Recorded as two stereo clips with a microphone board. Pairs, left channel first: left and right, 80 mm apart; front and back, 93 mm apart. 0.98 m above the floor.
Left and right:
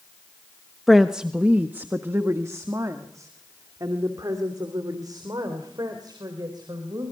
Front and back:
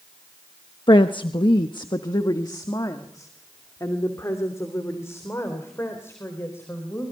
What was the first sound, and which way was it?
A woman speaking, straight ahead.